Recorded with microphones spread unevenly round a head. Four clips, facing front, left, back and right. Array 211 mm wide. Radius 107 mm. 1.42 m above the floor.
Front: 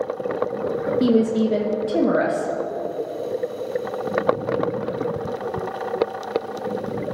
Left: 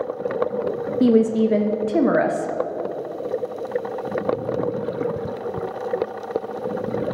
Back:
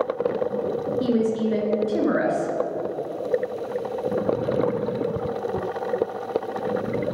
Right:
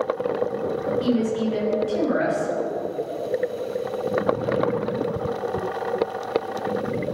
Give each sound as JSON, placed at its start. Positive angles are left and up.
{"t": 1.0, "sound": "a woman speaking", "azimuth_deg": 70, "distance_m": 1.0}